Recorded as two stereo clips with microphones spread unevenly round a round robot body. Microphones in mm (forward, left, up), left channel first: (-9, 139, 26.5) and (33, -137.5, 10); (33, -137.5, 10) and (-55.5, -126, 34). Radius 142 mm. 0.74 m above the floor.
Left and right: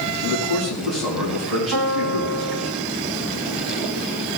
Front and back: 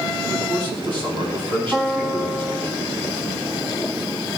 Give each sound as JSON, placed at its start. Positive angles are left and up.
{"t": 0.2, "sound": "a man speaking", "azimuth_deg": -175, "distance_m": 4.5}
{"t": 1.7, "sound": "a piano", "azimuth_deg": -120, "distance_m": 1.5}